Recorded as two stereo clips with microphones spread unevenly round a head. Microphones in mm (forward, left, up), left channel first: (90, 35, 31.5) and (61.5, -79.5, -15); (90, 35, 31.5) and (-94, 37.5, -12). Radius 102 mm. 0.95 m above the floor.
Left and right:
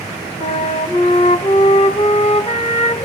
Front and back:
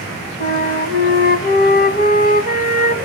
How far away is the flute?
About 1.0 m.